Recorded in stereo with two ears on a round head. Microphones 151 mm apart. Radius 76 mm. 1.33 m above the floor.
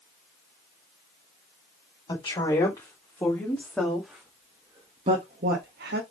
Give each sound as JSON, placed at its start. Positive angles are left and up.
{"t": 2.1, "sound": "a woman speaking", "side_deg": 25, "distance_m": 4.0}